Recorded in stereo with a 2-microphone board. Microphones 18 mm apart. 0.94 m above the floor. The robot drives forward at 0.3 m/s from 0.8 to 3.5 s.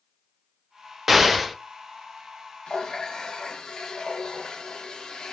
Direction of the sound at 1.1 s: 5° right (ahead or behind).